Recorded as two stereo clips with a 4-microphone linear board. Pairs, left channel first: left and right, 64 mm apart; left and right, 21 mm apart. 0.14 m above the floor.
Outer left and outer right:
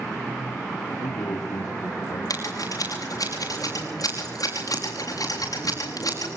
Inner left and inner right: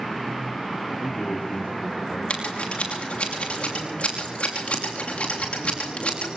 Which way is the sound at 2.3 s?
65° left (ahead or behind).